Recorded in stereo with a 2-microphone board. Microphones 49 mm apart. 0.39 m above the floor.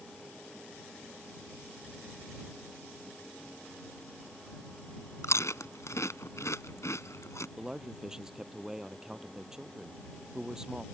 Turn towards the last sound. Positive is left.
turn(degrees=-15)  # may be behind; listen again after turning